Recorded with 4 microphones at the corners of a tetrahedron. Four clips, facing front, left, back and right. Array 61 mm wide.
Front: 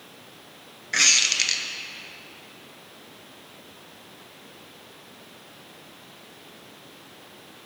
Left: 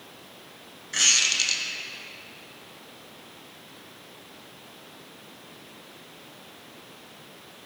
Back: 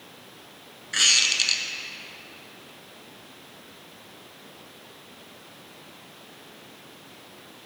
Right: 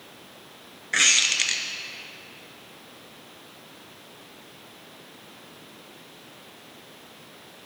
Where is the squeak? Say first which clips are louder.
Right 3 dB, even; 65° right, 0.8 m.